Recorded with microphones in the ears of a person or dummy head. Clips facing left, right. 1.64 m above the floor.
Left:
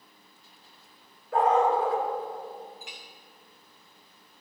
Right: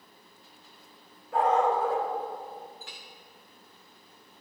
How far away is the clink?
About 0.9 m.